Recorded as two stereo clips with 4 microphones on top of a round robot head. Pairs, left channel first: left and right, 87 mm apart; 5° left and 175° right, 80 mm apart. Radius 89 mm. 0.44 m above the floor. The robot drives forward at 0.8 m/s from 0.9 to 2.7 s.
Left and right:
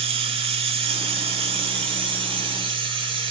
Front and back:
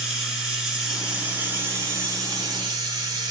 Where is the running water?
90° right, 2 m; by 3.3 s 125° right, 2.5 m.